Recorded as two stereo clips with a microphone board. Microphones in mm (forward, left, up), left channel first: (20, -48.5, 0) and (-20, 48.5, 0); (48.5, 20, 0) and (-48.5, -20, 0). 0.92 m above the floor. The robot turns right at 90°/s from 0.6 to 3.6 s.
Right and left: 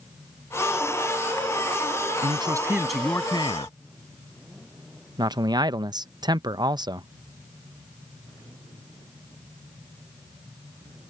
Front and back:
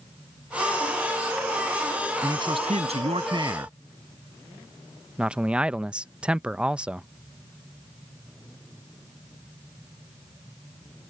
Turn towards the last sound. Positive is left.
turn(degrees=130)